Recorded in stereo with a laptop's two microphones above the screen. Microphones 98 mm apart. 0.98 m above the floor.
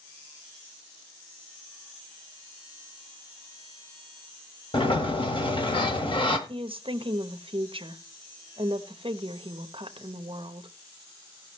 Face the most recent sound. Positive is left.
turn(degrees=-60)  # may be behind; listen again after turning